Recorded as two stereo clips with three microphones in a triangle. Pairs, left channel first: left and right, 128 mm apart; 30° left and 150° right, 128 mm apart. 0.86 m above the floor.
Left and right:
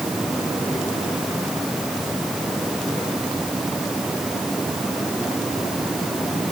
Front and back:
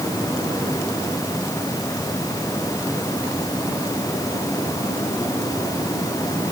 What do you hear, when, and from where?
Only background noise.